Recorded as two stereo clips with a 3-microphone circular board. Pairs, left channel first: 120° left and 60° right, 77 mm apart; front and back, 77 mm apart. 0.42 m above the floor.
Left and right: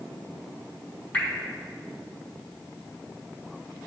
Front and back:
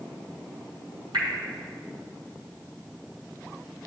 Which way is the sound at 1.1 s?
170° right.